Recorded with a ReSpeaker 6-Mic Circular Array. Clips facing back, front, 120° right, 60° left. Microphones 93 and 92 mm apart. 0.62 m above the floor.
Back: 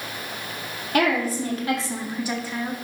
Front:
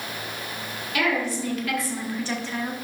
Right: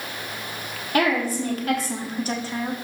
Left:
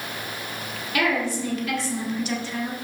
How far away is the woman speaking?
About 1.9 m.